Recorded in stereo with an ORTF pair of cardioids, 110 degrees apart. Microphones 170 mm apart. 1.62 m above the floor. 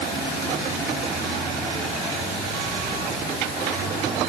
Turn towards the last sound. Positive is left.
No sound to turn to.